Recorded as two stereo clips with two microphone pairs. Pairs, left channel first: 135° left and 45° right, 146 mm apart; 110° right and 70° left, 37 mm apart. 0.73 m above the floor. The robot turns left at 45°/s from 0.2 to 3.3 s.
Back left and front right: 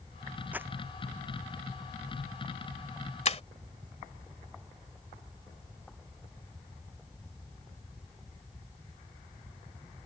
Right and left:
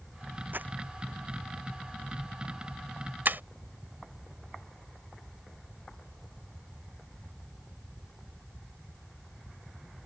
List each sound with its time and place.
0.5 s crumpling: 35° left; by 0.7 s 25° left
3.2 s breaking glass: 95° left